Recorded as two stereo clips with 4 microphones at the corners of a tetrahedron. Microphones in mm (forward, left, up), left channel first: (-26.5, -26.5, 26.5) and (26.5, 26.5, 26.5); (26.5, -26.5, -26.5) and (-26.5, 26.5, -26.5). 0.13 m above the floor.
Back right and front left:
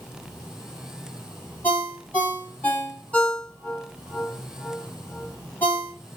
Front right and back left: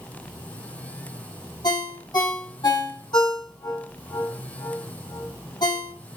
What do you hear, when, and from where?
1.6 s a ringtone: 60° right, 2.5 m